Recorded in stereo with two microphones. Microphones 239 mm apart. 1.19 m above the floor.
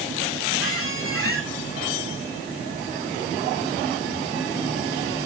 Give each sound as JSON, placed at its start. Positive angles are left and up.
{"t": 0.6, "sound": "a squeak", "side_deg": 65, "distance_m": 2.0}